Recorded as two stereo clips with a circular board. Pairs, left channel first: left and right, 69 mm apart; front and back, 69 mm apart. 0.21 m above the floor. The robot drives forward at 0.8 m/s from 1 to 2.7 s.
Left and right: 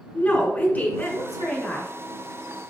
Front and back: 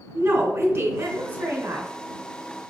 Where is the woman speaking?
140° left, 1.4 m; by 1.9 s 155° left, 1.9 m.